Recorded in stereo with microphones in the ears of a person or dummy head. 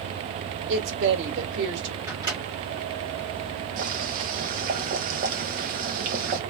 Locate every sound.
0.7 s a woman speaking: 70° right (ahead or behind), 1.8 m
2.1 s a microwave: 20° right (ahead or behind), 1.4 m
3.8 s boiling: 55° right (ahead or behind), 1.0 m